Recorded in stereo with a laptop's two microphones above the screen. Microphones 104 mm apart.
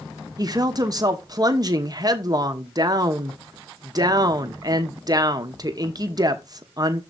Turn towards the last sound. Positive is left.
turn(degrees=-40)  # may be behind; listen again after turning